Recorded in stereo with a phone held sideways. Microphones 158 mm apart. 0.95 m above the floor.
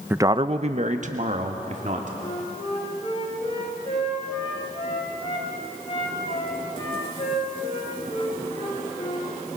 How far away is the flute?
About 6.5 m.